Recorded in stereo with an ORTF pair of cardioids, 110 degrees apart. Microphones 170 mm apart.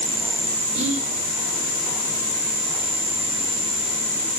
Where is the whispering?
40° right, 5 m.